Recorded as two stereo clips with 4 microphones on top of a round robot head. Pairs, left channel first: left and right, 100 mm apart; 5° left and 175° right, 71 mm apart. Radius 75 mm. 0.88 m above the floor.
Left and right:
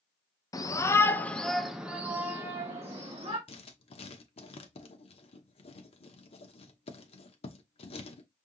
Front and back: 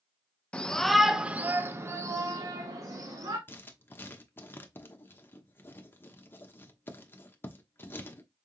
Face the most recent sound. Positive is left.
turn(degrees=65)